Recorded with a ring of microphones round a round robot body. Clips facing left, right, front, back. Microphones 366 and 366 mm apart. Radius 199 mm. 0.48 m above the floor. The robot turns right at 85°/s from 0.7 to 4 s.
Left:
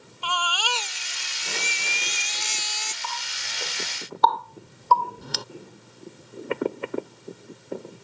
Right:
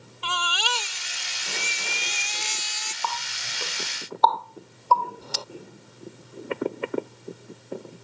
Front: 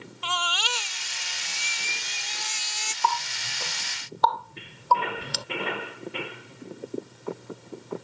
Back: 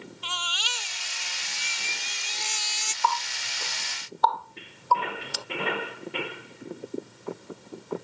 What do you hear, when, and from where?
0.2 s a baby crying: 30° right; by 2.9 s 160° left
3.0 s a running tap: 60° right; by 5.5 s 25° left